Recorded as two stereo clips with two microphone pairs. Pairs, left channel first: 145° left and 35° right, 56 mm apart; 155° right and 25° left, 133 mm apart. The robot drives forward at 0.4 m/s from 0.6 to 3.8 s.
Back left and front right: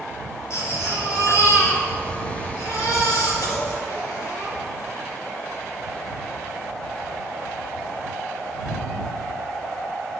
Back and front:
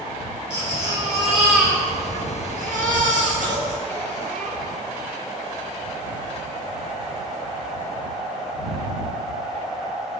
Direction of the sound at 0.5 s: 110° left.